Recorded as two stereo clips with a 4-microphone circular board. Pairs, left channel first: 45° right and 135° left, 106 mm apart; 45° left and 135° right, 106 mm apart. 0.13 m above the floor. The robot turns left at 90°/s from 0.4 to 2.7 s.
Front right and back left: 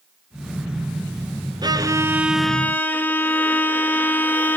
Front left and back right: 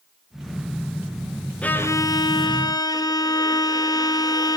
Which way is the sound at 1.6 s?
120° left.